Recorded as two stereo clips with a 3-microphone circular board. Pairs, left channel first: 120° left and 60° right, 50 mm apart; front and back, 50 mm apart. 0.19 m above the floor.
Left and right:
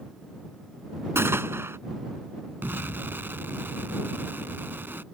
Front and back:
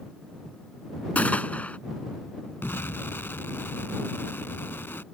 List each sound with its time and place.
1.1 s a gunshot: 55° right
2.6 s an explosion: 25° right